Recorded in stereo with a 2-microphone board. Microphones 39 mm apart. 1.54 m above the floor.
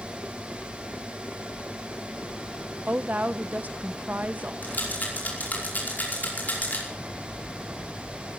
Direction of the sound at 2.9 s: 45° right (ahead or behind).